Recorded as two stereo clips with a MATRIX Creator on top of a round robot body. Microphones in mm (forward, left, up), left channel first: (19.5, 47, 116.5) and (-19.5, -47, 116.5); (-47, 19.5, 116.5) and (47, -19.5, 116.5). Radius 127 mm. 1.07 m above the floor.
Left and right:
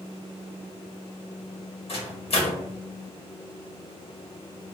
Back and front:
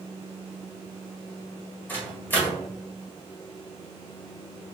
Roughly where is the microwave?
Left.